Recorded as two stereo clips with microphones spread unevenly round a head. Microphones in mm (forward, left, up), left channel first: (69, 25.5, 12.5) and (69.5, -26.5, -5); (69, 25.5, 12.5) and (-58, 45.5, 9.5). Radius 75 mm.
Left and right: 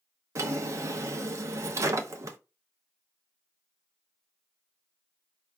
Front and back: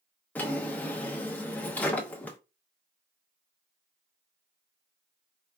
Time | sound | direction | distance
0.3 | a drawer | 80° right | 0.6 m